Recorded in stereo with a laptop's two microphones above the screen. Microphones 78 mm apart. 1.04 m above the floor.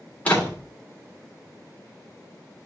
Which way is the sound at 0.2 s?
20° left (ahead or behind).